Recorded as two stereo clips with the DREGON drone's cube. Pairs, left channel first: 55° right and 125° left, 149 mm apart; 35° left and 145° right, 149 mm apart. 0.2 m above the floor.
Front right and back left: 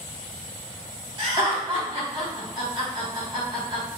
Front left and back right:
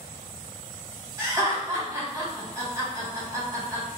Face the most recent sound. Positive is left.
turn(degrees=160)